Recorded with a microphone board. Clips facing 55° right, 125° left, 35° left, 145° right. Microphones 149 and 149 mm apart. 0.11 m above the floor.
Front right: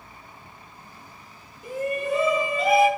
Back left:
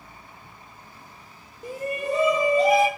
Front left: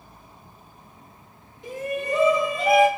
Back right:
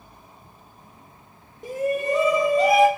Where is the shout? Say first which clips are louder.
Front right 2 dB, back right 5 dB; 175° left, 4 m; by 2.9 s 170° left, 3 m.